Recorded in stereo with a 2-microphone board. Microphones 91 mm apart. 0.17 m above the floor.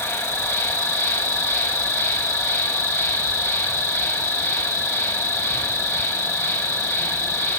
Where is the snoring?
I don't hear snoring.